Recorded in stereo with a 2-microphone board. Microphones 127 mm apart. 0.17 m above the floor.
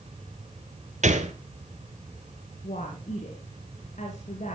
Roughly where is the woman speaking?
Left.